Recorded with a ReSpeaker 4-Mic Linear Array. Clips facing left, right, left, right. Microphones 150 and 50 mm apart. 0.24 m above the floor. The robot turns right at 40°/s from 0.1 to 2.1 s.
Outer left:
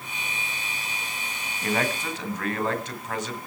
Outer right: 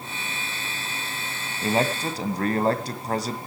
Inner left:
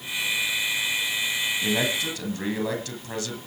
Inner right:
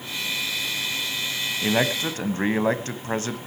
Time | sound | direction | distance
1.6 | a man speaking | 25° right (ahead or behind) | 1.6 m